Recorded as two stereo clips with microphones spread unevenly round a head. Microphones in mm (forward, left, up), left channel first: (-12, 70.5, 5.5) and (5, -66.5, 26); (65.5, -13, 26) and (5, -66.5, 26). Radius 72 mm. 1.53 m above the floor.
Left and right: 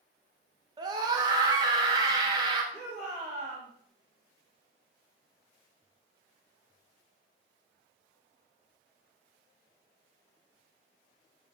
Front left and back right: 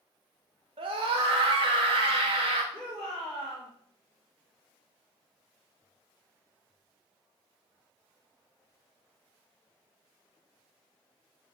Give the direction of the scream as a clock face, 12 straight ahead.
5 o'clock.